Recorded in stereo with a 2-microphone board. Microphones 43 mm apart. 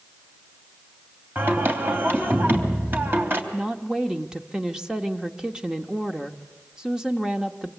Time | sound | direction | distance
1.4 | singing | 55° right (ahead or behind) | 3 m
3.5 | a woman speaking | 15° right (ahead or behind) | 1.2 m